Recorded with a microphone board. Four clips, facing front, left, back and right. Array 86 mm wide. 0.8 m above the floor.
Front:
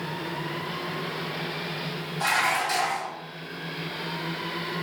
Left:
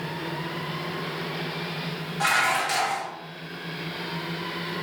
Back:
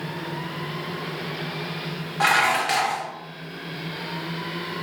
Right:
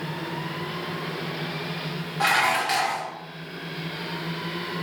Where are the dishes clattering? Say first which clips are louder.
Right 1 dB, back 5 dB; 165° right, 0.6 m.